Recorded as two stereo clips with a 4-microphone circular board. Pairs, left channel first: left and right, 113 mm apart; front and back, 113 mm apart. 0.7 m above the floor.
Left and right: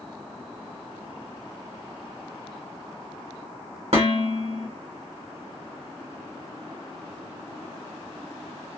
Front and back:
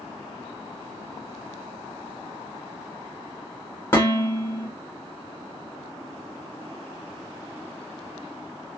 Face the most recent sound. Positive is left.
turn(degrees=-70)